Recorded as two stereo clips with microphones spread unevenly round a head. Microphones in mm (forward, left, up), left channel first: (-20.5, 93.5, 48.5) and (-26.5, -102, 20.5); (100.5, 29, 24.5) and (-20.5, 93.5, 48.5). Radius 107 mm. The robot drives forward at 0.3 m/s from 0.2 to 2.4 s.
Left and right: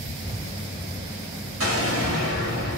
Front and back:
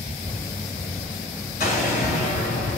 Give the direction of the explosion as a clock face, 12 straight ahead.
3 o'clock.